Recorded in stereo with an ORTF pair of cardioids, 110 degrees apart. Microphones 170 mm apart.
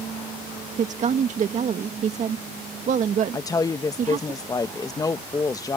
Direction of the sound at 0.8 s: 45° right.